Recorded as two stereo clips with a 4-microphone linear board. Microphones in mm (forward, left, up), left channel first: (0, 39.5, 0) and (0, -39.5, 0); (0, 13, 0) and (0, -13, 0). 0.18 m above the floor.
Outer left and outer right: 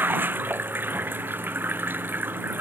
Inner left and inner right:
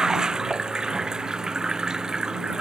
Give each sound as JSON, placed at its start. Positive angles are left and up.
{"t": 0.0, "sound": "running water", "side_deg": -25}